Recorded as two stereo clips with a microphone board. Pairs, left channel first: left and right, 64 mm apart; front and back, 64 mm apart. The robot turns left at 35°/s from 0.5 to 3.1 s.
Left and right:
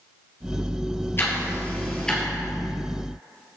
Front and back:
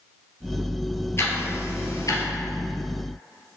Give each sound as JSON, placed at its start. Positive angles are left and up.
{"t": 1.2, "sound": "ticking", "azimuth_deg": 40, "distance_m": 2.0}